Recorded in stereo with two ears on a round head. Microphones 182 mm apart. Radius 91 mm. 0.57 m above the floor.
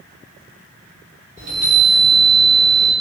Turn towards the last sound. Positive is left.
turn(degrees=-35)  # may be behind; listen again after turning